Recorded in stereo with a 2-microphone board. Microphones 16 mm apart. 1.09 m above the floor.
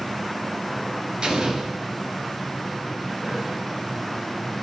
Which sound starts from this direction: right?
An explosion, at 1.2 s.